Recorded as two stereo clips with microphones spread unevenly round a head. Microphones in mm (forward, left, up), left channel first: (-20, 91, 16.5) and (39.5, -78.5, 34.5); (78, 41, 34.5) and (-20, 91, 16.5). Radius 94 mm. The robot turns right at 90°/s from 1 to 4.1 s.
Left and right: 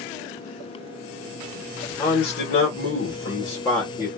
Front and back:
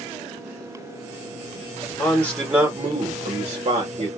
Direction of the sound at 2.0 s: 35° left.